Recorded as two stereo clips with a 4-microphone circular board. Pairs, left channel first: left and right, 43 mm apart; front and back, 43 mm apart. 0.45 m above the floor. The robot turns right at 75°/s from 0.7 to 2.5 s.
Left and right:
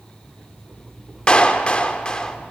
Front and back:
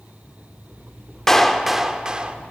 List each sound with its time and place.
1.3 s a clap: 60° left, 0.8 m; by 2.4 s 145° left, 0.8 m